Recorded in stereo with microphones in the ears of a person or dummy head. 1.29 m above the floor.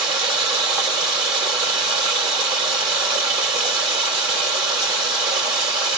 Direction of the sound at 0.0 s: 30° right (ahead or behind).